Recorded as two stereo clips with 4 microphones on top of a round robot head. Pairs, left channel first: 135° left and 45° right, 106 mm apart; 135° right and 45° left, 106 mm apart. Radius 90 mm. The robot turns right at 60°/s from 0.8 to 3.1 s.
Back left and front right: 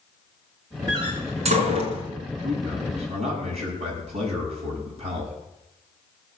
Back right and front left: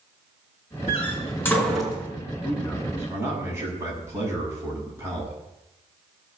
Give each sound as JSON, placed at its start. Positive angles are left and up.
{"t": 0.9, "sound": "a door slam", "azimuth_deg": -100, "distance_m": 5.0}
{"t": 2.4, "sound": "a man speaking", "azimuth_deg": -60, "distance_m": 7.5}